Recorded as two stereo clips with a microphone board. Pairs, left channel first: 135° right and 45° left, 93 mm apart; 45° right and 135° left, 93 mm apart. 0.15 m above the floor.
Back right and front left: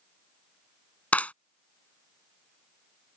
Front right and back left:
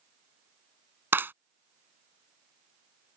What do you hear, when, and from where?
1.1 s a clap: 170° left